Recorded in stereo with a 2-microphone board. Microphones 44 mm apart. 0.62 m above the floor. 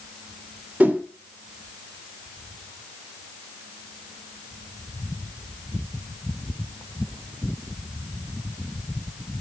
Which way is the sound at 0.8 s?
35° right (ahead or behind).